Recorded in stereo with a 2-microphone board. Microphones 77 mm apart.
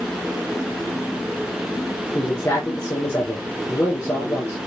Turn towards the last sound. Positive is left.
turn(degrees=35)  # may be behind; listen again after turning